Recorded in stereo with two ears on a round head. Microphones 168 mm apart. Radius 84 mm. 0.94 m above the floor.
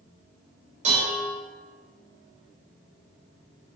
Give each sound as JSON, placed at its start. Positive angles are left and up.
{"t": 0.8, "sound": "dishes clattering", "side_deg": -40, "distance_m": 3.0}